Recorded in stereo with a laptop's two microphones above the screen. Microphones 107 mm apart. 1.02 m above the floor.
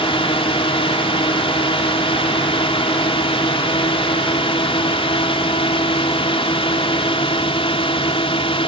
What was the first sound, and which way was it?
A drone, 60° left (ahead or behind).